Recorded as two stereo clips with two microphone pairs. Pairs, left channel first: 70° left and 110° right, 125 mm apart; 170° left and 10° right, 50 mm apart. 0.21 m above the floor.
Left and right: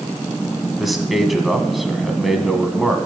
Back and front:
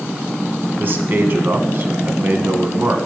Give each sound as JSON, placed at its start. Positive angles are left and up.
{"t": 0.8, "sound": "a man speaking", "azimuth_deg": -20, "distance_m": 1.4}